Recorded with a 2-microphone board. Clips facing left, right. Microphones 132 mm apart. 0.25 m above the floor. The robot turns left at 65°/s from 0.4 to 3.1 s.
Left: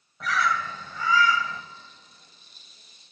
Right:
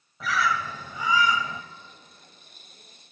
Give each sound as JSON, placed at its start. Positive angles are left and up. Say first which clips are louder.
{"t": 0.2, "sound": "a bird", "louder": "even", "side_deg": 0, "distance_m": 1.0}